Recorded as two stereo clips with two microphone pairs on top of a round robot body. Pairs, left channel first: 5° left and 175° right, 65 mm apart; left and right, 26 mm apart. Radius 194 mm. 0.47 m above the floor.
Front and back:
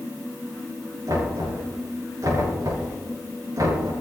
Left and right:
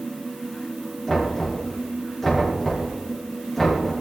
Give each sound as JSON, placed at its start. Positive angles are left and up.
{"t": 1.1, "sound": "knocking", "azimuth_deg": 170, "distance_m": 7.0}